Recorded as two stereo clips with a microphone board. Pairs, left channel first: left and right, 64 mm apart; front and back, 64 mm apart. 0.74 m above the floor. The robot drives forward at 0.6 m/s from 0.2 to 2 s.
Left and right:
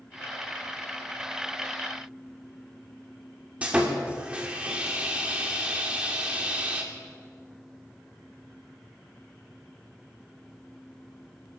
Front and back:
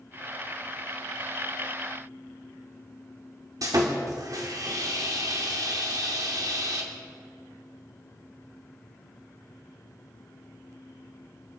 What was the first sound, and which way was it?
Sawing, 160° right.